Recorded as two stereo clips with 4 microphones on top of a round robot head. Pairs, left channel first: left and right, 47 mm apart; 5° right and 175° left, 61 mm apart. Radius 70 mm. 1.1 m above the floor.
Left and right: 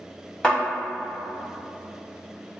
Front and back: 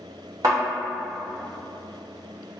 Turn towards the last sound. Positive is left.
turn(degrees=155)